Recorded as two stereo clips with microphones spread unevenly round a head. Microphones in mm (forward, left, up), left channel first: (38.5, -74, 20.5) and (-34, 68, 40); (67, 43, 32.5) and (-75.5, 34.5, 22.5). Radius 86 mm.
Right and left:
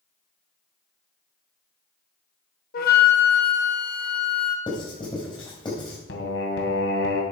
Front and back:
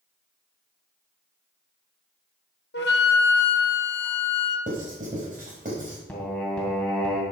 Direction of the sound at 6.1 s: 75° right.